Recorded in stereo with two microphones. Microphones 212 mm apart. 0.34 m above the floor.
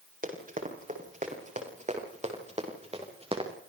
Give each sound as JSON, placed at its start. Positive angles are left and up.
{"t": 0.2, "sound": "running footsteps", "side_deg": -40, "distance_m": 8.0}